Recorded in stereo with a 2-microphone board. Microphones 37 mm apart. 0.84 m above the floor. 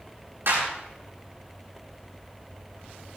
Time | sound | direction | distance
0.5 | a clap | 75° right (ahead or behind) | 9.5 m